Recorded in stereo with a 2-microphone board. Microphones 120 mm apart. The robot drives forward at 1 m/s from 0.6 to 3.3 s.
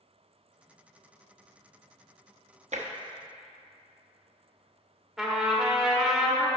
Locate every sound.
2.7 s tapping: 70° right (ahead or behind), 0.7 m; by 2.9 s 80° right, 0.6 m
5.2 s a trumpet: centre (ahead or behind), 1.1 m